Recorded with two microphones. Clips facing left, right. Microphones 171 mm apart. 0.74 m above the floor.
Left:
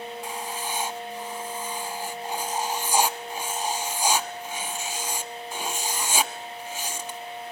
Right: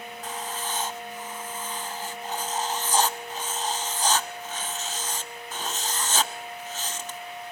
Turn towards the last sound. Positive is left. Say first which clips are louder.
# right 3 dB
turn(degrees=10)  # may be behind; listen again after turning